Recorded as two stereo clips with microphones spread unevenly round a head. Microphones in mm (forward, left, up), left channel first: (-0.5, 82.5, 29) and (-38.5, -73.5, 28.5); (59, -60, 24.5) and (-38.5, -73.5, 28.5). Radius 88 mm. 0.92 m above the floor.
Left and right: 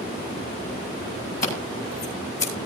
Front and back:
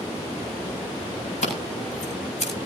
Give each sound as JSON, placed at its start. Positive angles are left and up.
{"t": 1.4, "sound": "scissors", "azimuth_deg": 30, "distance_m": 9.0}